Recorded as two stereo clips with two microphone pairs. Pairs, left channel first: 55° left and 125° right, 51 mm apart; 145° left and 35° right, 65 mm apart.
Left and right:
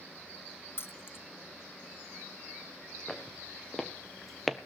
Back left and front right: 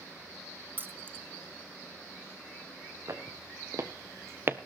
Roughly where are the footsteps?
Ahead.